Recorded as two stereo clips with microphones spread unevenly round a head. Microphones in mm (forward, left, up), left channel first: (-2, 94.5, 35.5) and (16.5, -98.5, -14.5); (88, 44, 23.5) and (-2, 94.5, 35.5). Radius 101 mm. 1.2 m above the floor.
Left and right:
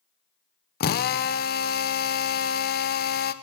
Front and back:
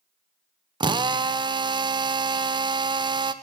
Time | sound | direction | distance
0.8 | a drill | 130° left | 0.7 m